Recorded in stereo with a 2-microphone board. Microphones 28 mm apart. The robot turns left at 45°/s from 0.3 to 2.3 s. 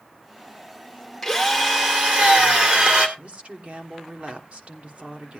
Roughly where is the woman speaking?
Right.